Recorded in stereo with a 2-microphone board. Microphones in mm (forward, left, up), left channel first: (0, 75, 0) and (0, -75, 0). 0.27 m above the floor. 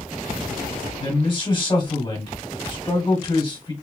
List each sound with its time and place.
1.0 s a man speaking: 35° left (ahead or behind), 1.5 m